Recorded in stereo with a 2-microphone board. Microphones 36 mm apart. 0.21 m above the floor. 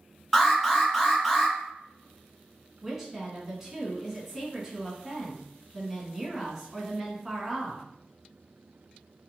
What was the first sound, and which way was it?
An alarm, centre (ahead or behind).